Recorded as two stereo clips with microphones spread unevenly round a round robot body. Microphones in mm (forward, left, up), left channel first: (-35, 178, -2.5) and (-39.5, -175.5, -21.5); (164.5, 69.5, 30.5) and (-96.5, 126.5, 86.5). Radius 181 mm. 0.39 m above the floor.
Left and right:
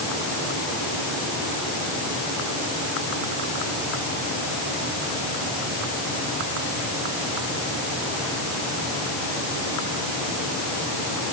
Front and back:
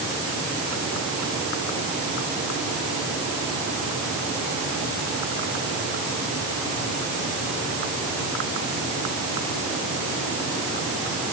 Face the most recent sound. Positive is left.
No sound to turn to.